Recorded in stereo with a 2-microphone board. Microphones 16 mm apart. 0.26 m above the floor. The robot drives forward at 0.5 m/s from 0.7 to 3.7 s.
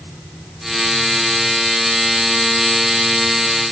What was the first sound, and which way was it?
Only background noise.